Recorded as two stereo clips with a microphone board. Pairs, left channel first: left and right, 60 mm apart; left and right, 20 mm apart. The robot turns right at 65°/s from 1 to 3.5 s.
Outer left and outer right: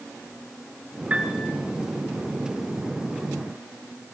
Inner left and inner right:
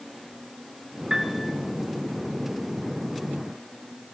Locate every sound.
1.1 s a piano: 25° right (ahead or behind), 2.5 m; by 1.5 s 5° right (ahead or behind), 2.5 m